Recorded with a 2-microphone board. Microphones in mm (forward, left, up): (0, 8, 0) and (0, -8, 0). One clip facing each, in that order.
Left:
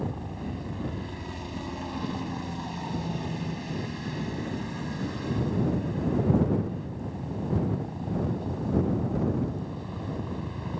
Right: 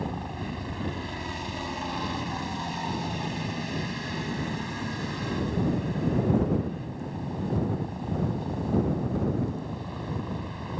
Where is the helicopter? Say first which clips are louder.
Right 1 dB; 30° right (ahead or behind); by 10.8 s 15° right (ahead or behind).